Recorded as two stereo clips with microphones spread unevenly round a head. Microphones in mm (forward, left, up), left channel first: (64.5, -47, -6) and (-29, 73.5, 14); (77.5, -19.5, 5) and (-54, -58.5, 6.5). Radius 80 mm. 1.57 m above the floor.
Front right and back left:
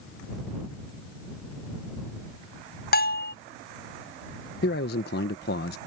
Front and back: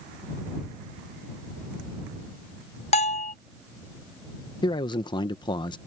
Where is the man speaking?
40° right.